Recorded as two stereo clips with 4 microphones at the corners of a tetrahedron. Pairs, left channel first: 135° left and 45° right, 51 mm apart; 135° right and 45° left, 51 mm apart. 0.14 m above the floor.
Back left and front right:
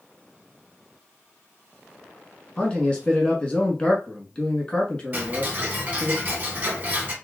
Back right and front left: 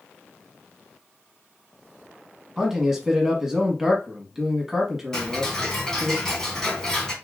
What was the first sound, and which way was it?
A man speaking, 115° left.